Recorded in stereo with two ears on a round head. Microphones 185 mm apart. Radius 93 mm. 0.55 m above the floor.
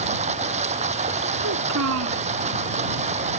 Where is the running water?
35° right (ahead or behind).